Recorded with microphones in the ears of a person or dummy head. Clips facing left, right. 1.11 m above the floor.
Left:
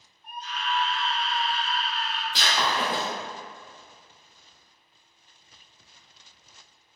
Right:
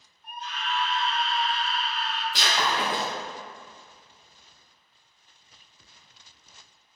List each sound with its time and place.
0.2 s a scream: 50° right (ahead or behind), 0.9 m; by 2.2 s 45° left (ahead or behind), 1.0 m
2.3 s breaking glass: centre (ahead or behind), 0.5 m